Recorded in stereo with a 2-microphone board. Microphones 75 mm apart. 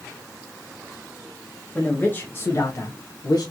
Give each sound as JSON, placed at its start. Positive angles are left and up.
{"t": 1.8, "sound": "a man speaking", "side_deg": 20, "distance_m": 1.2}